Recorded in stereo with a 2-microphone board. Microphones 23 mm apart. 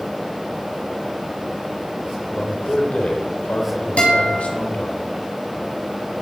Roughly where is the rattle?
I don't hear a rattle.